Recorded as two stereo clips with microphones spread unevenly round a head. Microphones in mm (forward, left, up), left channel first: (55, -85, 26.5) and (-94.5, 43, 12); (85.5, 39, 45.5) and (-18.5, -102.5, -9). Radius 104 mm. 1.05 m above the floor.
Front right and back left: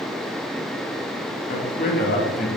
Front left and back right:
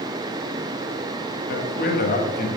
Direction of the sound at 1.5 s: 15° left.